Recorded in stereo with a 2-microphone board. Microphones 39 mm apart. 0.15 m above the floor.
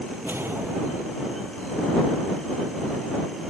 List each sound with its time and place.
0.2 s a whoosh: 70° right (ahead or behind)